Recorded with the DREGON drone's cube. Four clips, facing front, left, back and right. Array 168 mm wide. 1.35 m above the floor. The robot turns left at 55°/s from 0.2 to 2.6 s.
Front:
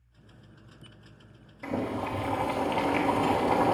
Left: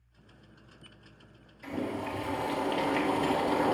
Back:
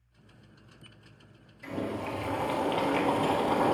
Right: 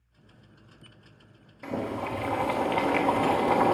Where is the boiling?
45° right, 1.2 m; by 3.7 s 100° right, 1.2 m.